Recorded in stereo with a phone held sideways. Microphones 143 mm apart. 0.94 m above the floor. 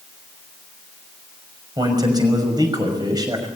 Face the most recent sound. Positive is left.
turn(degrees=-30)  # may be behind; listen again after turning